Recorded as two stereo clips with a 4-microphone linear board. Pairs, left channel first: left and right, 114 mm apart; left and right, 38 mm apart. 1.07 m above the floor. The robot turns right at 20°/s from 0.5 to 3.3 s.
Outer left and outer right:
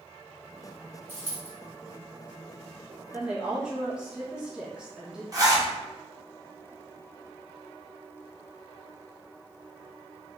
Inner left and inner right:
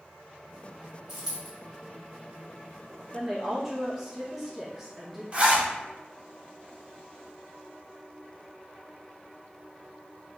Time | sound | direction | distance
1.1 | a dropped coin | 20° right (ahead or behind) | 1.3 m
3.1 | a woman speaking | 10° right (ahead or behind) | 0.7 m
5.3 | a zipper | 35° right (ahead or behind) | 0.7 m